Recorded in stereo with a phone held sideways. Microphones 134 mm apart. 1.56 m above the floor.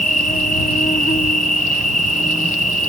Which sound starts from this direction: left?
An insect, at 0.0 s.